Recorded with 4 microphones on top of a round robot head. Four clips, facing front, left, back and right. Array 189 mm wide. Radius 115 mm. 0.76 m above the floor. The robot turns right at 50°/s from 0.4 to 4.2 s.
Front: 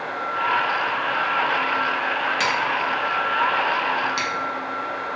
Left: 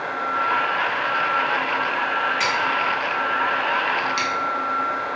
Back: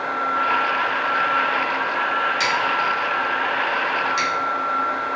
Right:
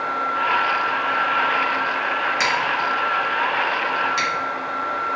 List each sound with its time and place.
2.4 s scissors: 55° right, 1.3 m; by 4.3 s 35° left, 1.3 m